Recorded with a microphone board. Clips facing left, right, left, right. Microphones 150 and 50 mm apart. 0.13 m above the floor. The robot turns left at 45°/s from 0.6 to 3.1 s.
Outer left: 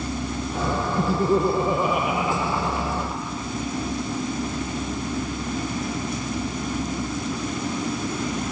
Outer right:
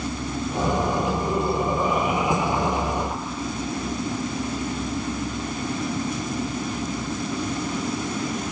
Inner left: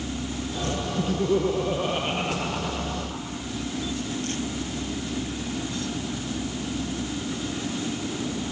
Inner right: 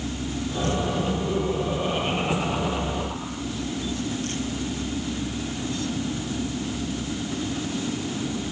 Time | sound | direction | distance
1.0 | laughter | 55° left | 4 m